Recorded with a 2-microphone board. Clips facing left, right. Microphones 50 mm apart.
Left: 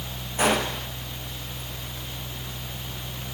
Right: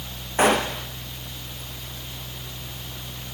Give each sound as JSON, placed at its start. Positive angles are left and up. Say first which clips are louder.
{"t": 0.4, "sound": "a gunshot", "louder": "right 3 dB", "side_deg": -50, "distance_m": 4.5}